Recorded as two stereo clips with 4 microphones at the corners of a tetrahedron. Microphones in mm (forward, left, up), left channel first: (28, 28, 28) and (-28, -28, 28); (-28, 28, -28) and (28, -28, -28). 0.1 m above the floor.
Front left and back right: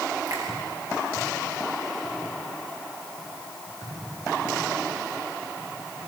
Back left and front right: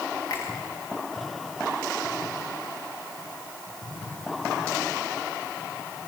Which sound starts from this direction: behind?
A finger snap, at 0.3 s.